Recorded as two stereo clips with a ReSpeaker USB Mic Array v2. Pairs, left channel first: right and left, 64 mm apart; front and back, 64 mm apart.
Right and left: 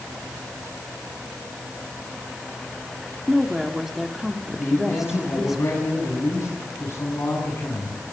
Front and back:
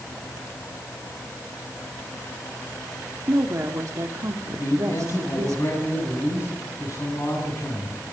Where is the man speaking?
40° right, 7.5 m.